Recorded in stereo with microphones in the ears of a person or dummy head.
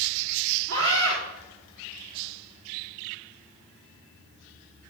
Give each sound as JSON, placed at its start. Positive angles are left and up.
{"t": 0.7, "sound": "a scream", "side_deg": -80, "distance_m": 4.0}